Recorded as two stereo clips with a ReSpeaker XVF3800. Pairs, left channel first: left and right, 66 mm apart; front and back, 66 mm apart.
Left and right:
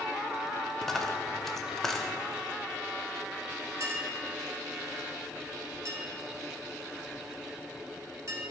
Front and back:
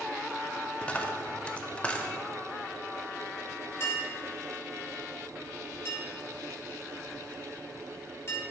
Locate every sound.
0.8 s a dropped coin: 20° left, 0.6 m
3.8 s a clink: 50° right, 1.5 m